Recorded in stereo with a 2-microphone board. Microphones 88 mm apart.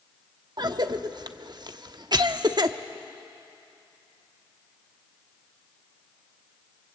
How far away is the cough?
About 0.9 m.